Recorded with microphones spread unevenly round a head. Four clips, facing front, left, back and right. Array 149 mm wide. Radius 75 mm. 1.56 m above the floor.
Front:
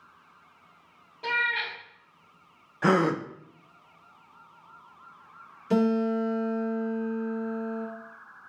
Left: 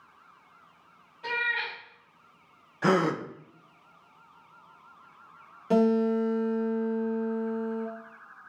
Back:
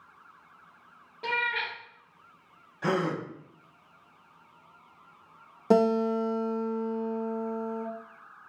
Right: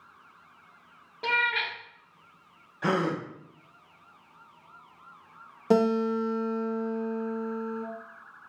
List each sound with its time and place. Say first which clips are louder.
1.2 s a cat meowing: right 3 dB, front 1 dB; 100° right, 2 m
2.8 s a gasp: left 3 dB, front 5 dB; 30° left, 0.7 m
5.7 s a guitar: even, back 1 dB; 150° right, 2 m